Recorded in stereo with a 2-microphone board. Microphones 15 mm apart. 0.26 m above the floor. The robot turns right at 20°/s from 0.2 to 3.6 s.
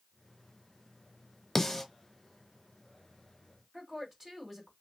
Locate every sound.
1.6 s a snare drum: 20° left (ahead or behind), 0.8 m; by 1.8 s 15° left (ahead or behind), 0.8 m
3.7 s a woman speaking: 20° right (ahead or behind), 1.6 m